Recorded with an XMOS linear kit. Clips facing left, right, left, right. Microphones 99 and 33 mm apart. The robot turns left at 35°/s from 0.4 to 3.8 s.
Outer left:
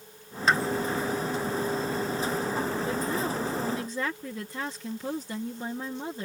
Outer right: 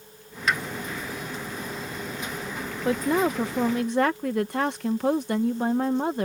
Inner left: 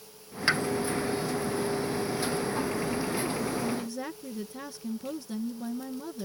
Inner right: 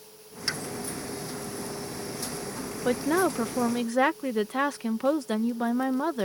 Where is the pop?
30° left (ahead or behind); by 0.6 s 35° left (ahead or behind).